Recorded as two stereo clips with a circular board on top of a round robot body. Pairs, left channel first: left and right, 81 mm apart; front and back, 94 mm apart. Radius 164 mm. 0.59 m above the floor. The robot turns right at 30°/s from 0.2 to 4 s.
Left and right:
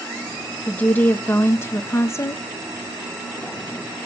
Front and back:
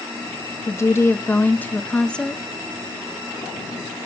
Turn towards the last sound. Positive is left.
turn(degrees=130)